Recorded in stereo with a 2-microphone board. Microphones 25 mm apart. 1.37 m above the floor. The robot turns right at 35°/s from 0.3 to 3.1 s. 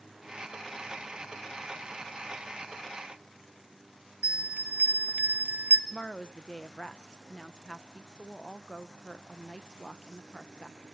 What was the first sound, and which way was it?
A bell, 85° right.